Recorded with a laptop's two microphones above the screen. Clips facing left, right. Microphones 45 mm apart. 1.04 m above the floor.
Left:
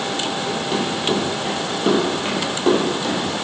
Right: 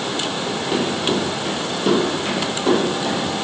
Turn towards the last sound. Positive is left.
turn(degrees=50)  # may be behind; listen again after turning